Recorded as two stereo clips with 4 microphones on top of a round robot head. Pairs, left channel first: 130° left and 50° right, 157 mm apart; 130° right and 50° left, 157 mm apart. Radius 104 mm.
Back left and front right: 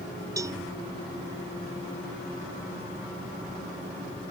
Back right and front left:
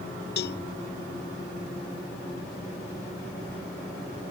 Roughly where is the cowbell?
Behind right.